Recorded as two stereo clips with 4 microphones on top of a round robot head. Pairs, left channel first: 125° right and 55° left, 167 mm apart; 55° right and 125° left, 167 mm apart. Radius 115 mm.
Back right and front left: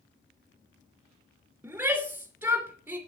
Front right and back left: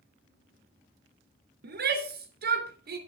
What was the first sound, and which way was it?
A shout, 135° left.